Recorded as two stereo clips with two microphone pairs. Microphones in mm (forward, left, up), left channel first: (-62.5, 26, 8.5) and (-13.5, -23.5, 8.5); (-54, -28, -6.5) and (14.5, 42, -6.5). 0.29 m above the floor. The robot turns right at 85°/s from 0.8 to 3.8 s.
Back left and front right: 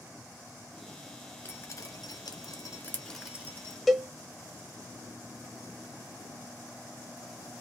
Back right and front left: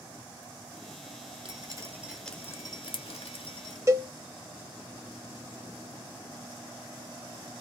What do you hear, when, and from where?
1.4 s dripping: 70° left, 1.0 m; by 3.8 s 90° right, 1.0 m
3.9 s a cowbell: 50° left, 0.6 m